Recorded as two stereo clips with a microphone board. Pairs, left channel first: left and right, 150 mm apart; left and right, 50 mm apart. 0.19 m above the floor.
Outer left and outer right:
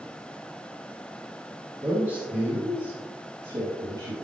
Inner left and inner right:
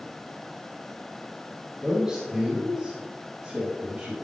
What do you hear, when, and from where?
1.8 s a man speaking: 15° right (ahead or behind), 3.5 m; by 4.1 s 40° right (ahead or behind), 4.5 m